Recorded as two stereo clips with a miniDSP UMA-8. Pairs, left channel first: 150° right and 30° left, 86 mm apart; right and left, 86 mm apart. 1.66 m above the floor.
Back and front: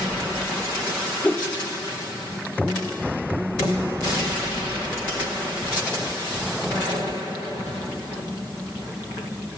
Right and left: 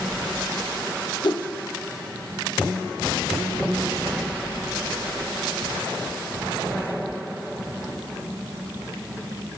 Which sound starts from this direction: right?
A whoosh, at 1.2 s.